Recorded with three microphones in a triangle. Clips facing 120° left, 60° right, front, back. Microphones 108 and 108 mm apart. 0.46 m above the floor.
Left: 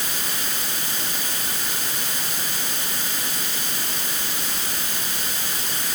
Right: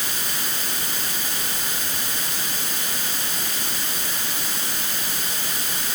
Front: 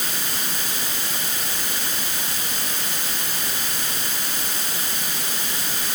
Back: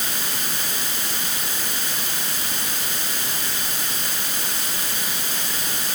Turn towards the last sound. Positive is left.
No sound to turn to.